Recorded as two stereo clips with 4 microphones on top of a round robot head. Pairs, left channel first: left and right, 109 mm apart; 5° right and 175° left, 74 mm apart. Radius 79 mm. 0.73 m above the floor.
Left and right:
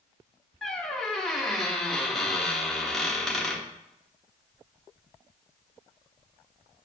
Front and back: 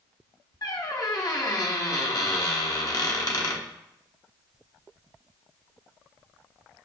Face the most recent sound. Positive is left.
turn(degrees=5)